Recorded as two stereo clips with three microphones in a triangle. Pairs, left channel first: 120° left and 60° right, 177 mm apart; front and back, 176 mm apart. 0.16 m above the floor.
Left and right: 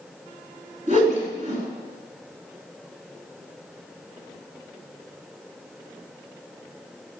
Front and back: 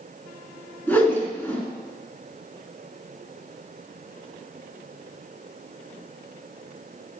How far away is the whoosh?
About 2 m.